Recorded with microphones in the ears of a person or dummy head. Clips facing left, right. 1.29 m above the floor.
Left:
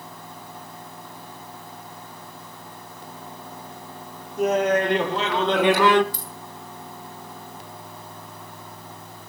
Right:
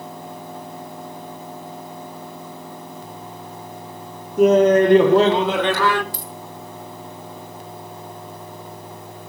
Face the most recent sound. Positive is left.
turn(degrees=-60)  # may be behind; listen again after turning